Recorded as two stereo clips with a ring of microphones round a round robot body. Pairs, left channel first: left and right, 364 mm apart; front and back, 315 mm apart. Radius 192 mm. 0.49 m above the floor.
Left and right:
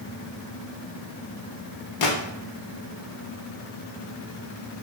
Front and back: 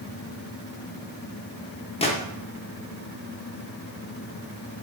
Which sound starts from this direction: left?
A gunshot, at 2.0 s.